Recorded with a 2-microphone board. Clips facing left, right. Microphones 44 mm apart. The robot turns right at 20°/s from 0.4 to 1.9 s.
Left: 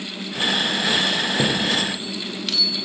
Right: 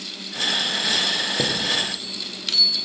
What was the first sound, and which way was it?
A chime, 5° right (ahead or behind).